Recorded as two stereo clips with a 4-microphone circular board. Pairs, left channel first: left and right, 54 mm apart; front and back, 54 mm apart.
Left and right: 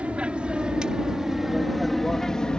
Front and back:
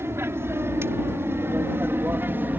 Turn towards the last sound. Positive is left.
turn(degrees=155)